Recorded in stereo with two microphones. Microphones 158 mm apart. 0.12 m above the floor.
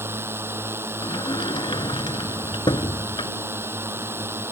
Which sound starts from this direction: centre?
A drone, at 0.0 s.